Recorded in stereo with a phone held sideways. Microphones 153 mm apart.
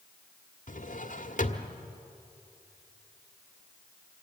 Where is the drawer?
55° left (ahead or behind), 1.5 m.